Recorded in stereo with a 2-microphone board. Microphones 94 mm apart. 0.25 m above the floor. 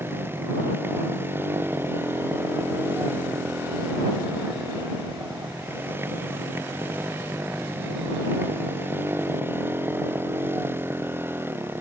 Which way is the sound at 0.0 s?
25° right (ahead or behind).